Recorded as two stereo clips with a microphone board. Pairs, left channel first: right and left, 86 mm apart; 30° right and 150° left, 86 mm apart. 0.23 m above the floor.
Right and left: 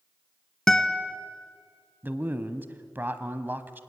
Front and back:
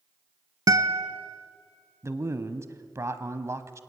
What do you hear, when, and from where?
0.7 s a guitar: 175° right, 1.0 m
2.0 s a man speaking: 140° left, 1.1 m